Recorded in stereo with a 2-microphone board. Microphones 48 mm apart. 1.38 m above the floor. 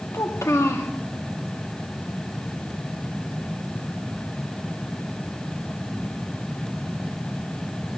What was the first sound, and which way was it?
A child speaking, 70° left (ahead or behind).